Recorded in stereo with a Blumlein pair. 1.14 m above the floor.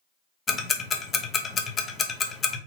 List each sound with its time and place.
0.5 s ticking: 20° left, 0.7 m